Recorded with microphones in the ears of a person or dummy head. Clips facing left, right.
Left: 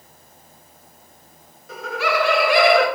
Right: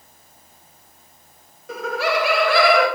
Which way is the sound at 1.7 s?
60° right (ahead or behind).